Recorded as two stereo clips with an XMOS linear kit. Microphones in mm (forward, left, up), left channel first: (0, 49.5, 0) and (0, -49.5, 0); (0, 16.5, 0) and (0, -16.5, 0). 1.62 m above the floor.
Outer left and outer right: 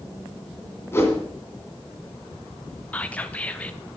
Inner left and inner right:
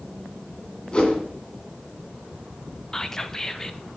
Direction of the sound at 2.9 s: 15° left (ahead or behind).